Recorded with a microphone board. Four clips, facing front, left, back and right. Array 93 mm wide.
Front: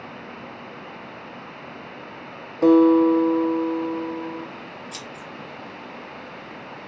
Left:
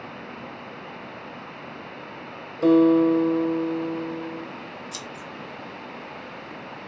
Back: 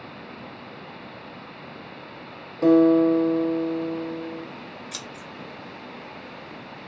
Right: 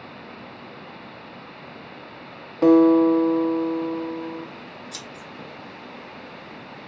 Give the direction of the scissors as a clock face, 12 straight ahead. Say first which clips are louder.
Left 2 dB, front 2 dB; 6 o'clock.